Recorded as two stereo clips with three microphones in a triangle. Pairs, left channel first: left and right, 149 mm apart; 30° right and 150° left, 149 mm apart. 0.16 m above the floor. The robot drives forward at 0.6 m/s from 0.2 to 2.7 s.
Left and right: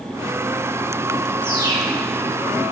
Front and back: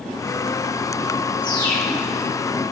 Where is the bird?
30° left, 6.5 m.